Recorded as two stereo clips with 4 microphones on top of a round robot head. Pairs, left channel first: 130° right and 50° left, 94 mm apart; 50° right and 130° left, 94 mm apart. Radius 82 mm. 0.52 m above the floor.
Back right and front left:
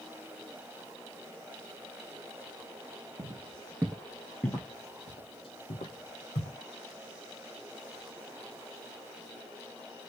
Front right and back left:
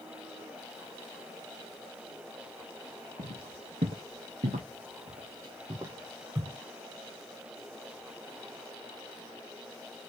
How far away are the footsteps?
About 1.3 m.